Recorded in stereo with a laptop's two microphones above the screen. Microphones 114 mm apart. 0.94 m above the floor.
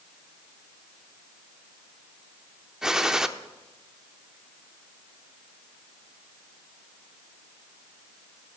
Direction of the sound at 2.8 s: 5° right (ahead or behind).